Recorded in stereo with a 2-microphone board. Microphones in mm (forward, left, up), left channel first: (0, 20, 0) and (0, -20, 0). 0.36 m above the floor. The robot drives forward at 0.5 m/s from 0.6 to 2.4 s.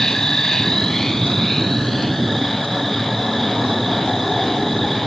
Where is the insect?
15° left (ahead or behind); by 5.1 s 5° left (ahead or behind).